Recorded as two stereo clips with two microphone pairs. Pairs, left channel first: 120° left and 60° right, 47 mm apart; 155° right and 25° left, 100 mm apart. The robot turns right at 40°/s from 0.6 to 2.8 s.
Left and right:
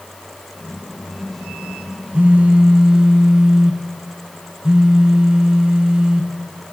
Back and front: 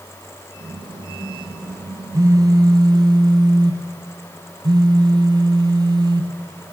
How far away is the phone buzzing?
About 0.7 m.